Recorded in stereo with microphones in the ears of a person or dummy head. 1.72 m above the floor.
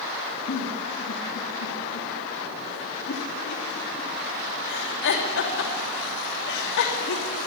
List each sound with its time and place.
0.5 s a giggle: 70° left (ahead or behind), 3 m